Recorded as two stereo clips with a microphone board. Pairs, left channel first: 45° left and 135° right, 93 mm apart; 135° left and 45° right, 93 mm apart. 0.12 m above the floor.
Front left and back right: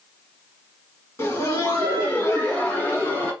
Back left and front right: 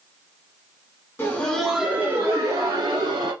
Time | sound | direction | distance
1.2 | laughter | 85° left | 1.7 m